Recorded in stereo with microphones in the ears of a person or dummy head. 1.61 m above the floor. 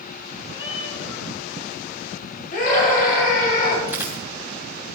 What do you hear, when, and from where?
0.5 s a cat meowing: 35° left (ahead or behind), 6 m
2.5 s a scream: 55° left (ahead or behind), 5.5 m
3.9 s a dropped coin: 10° right (ahead or behind), 3 m